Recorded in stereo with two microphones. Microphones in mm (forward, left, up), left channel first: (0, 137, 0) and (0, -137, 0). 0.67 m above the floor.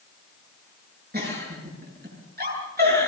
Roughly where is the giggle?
Right.